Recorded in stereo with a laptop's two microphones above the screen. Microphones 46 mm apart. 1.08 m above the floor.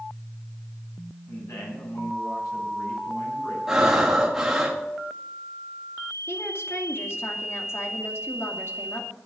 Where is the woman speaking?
60° left (ahead or behind), 2.5 m.